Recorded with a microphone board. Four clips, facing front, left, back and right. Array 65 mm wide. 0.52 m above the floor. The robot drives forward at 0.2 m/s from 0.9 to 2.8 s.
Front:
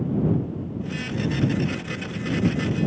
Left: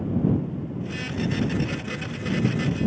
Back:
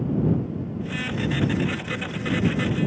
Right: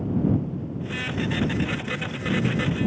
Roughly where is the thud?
I don't hear a thud.